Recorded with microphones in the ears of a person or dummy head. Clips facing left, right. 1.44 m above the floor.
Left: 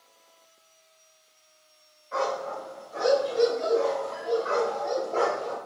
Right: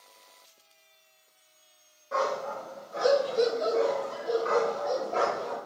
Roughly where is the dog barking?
Right.